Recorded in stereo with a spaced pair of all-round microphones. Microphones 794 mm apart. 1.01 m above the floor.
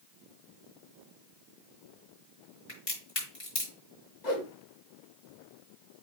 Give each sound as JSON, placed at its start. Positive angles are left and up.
{"t": 2.7, "sound": "a crack", "side_deg": 80, "distance_m": 4.5}
{"t": 4.2, "sound": "a whoosh", "side_deg": 60, "distance_m": 1.5}